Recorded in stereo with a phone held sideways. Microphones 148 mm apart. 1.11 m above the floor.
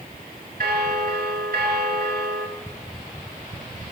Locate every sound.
0.6 s a bell: 80° right, 1.9 m